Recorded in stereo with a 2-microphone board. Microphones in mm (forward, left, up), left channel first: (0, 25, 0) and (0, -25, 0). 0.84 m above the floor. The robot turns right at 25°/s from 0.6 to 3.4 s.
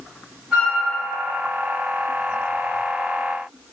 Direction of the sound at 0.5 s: 15° right (ahead or behind).